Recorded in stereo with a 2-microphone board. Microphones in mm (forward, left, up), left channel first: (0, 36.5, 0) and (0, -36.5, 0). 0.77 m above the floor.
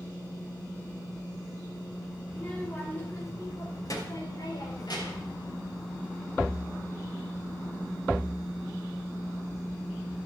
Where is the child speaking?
15° left (ahead or behind), 2.5 m; by 5.3 s 75° left (ahead or behind), 4 m.